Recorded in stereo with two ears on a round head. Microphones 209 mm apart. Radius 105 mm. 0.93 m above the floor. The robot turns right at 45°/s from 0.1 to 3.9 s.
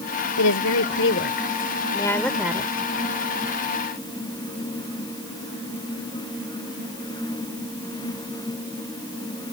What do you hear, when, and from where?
0.4 s a woman speaking: 90° left; by 2.7 s 165° right